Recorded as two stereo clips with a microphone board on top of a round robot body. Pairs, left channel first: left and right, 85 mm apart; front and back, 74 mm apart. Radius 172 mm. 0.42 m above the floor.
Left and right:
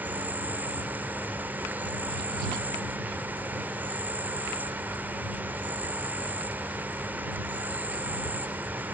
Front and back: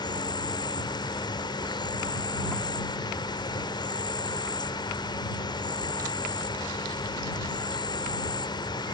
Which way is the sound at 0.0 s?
20° right.